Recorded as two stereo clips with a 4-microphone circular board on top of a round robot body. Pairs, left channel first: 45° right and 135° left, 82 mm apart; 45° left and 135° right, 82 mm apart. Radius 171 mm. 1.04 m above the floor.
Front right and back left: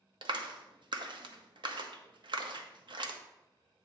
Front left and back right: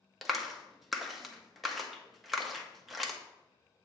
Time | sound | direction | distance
0.2 | a clap | 135° left | 1.0 m